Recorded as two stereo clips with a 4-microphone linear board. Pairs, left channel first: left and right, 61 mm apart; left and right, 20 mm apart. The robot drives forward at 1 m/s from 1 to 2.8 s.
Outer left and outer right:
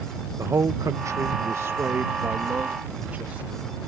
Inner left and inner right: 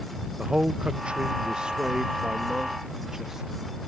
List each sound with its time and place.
0.4 s a man speaking: 60° right (ahead or behind); by 3.6 s 25° right (ahead or behind)